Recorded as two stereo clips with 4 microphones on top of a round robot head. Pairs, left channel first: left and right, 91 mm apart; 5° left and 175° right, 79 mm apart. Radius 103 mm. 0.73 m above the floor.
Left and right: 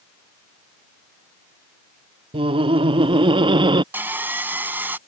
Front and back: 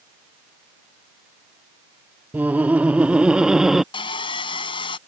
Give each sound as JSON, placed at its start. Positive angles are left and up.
{"t": 2.3, "sound": "laughter", "azimuth_deg": -105}
{"t": 3.9, "sound": "sawing", "azimuth_deg": -20}